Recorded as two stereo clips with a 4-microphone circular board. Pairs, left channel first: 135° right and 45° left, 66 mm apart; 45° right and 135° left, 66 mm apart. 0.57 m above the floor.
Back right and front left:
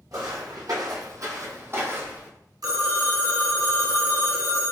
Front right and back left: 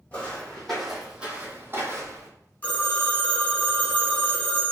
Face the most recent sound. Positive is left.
turn(degrees=20)